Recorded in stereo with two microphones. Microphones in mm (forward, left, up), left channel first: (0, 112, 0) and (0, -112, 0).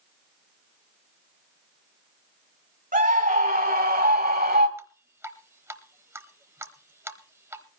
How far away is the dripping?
About 0.9 m.